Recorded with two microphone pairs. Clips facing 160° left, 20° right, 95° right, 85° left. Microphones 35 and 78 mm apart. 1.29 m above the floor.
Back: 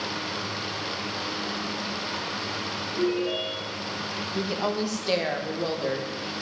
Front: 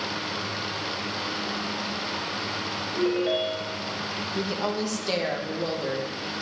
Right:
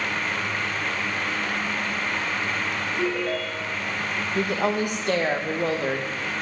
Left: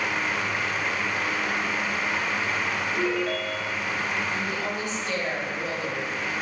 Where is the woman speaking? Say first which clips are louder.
Back 1 dB, right 6 dB; 125° right, 1.2 m.